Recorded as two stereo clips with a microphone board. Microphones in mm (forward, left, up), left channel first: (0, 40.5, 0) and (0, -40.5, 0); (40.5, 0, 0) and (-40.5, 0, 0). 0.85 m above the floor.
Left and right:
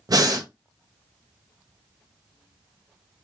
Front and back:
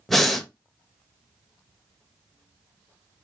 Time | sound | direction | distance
0.1 | breathing | 85° right | 0.7 m